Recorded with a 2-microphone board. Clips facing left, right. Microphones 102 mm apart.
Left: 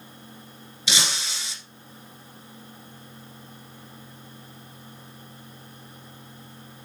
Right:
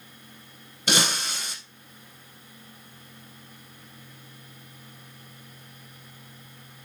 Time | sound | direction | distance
0.9 | breaking glass | 50° right (ahead or behind) | 1.4 m